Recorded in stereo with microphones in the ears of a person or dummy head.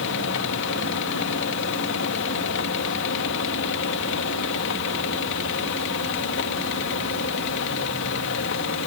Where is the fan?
65° left (ahead or behind).